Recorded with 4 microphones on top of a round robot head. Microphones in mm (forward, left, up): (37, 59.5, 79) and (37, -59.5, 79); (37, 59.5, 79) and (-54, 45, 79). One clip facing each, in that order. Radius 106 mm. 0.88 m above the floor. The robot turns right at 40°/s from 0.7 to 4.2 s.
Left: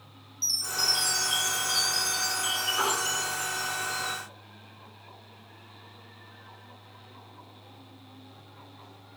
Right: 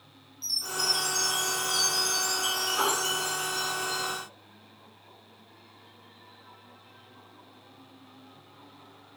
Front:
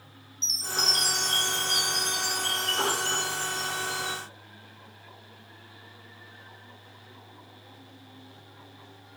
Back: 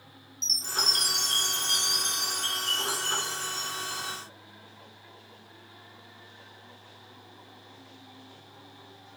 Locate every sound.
0.4 s a chime: 140° left, 2.5 m; by 4.2 s 80° right, 2.5 m